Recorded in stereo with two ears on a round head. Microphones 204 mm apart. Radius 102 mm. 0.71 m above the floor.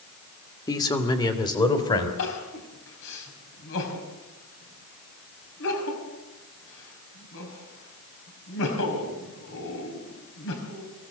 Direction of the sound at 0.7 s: 15° left (ahead or behind).